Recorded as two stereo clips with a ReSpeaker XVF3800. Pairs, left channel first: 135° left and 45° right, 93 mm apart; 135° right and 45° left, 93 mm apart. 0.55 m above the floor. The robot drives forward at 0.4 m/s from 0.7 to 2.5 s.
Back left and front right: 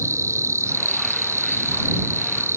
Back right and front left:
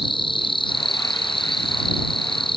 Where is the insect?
105° right; by 2.6 s 110° right.